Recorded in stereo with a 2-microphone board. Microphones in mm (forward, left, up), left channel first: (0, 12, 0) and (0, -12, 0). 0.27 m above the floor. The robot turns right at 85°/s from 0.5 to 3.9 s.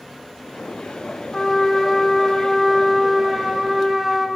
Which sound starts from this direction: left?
A trumpet, at 1.3 s.